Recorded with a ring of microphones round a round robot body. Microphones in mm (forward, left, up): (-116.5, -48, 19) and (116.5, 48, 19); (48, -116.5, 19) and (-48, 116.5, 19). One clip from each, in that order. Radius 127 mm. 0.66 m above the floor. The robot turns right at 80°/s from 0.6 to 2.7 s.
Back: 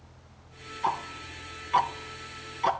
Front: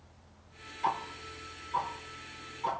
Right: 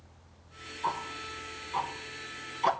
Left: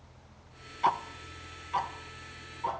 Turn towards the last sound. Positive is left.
turn(degrees=-100)